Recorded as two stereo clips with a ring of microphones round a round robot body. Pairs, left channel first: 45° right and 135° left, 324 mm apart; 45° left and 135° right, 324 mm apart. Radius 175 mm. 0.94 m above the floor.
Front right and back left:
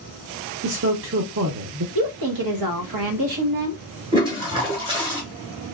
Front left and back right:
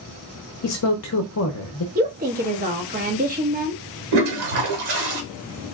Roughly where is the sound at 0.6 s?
Left.